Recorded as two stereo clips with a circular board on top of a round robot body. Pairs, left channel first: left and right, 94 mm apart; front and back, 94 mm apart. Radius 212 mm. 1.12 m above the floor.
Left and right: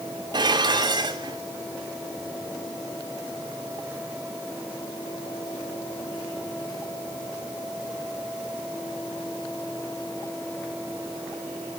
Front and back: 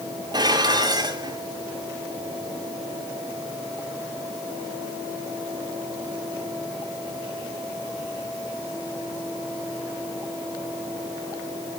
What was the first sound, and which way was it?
Dishes clattering, 135° right.